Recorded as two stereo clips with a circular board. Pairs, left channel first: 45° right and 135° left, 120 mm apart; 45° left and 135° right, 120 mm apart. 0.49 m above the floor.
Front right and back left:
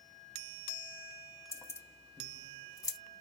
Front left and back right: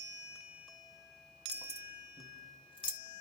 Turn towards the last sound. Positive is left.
turn(degrees=5)